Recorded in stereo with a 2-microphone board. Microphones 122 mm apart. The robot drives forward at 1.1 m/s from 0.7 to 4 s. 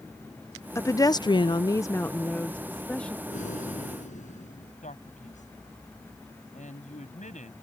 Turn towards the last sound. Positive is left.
turn(degrees=90)